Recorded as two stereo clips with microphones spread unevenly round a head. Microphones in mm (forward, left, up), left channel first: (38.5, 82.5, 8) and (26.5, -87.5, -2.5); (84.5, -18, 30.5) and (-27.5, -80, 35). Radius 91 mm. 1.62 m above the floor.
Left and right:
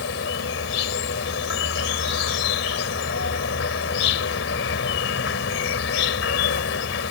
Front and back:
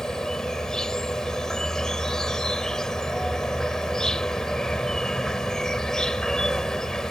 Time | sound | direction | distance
0.0 | an insect | 115° left | ?